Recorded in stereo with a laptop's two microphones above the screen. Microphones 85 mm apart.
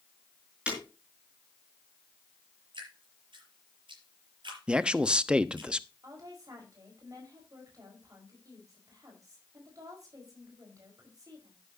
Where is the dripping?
85° right, 6 m.